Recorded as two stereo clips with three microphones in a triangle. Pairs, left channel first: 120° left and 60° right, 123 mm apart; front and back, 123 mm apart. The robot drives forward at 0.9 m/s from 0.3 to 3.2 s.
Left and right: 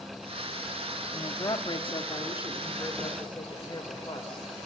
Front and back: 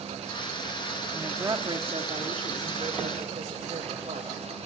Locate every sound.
1.1 s a woman speaking: 115° left, 1.0 m; by 4.5 s 170° left, 2.5 m